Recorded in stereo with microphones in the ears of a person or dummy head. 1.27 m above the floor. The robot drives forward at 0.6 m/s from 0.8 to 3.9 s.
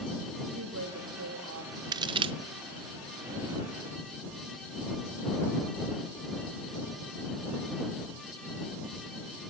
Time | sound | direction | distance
0.6 | a woman speaking | 75° right (ahead or behind) | 3 m
1.9 | a crack | 20° right (ahead or behind) | 0.8 m